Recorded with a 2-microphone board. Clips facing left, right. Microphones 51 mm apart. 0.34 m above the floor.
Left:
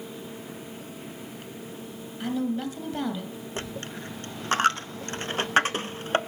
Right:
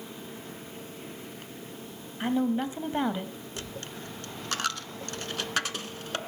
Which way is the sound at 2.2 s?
25° right (ahead or behind).